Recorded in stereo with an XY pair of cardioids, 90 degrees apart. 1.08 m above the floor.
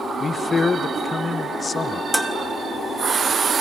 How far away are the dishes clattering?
About 1.2 m.